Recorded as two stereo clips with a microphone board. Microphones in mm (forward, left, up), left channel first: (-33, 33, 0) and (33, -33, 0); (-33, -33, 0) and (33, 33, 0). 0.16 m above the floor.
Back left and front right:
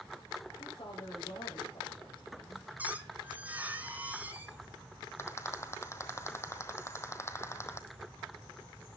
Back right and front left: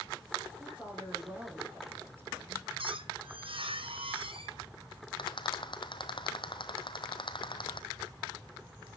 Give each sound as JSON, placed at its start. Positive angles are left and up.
{"t": 0.6, "sound": "a woman speaking", "azimuth_deg": 120, "distance_m": 7.0}
{"t": 2.8, "sound": "a squeak", "azimuth_deg": 30, "distance_m": 1.2}
{"t": 5.2, "sound": "a rattle", "azimuth_deg": -165, "distance_m": 1.2}